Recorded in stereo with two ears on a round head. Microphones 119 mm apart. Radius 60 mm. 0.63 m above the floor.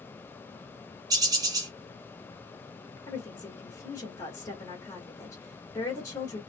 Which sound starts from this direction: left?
A woman speaking, at 3.1 s.